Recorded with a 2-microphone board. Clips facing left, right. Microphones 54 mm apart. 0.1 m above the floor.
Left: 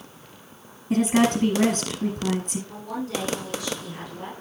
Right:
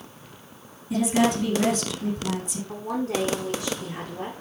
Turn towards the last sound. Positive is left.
turn(degrees=-45)  # may be behind; listen again after turning